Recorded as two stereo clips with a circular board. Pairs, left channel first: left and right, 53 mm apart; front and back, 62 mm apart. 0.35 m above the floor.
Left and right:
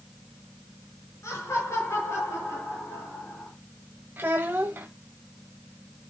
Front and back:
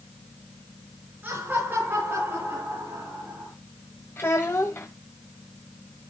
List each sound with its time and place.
1.2 s laughter: 120° left, 6 m; by 3.5 s 135° left, 8 m
4.2 s a child speaking: 45° right, 1.1 m